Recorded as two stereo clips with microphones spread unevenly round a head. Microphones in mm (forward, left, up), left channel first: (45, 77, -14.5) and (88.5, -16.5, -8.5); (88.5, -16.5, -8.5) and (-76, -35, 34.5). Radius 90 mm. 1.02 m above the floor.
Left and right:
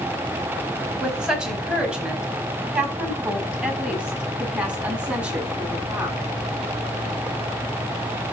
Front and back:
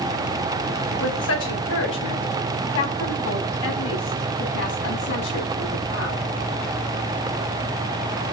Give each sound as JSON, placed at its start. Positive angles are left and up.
{"t": 1.0, "sound": "a woman speaking", "azimuth_deg": 20, "distance_m": 8.0}